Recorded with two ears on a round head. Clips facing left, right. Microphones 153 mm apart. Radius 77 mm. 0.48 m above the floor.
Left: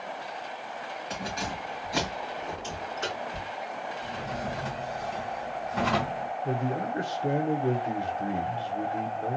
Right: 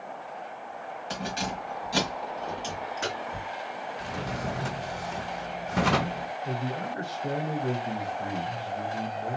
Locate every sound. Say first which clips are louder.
1.1 s keys jangling: right 2 dB; 35° right (ahead or behind), 1.6 m; by 3.5 s 40° right (ahead or behind), 3 m
4.0 s a drawer: right 1 dB; 60° right (ahead or behind), 0.9 m
6.5 s a man speaking: left 3 dB; 25° left (ahead or behind), 0.8 m